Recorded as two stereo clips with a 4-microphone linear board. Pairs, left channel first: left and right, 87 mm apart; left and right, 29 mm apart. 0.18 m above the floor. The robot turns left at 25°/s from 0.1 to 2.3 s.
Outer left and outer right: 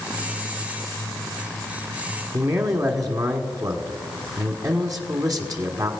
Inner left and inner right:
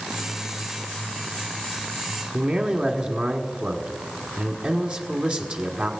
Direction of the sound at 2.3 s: 45° right (ahead or behind).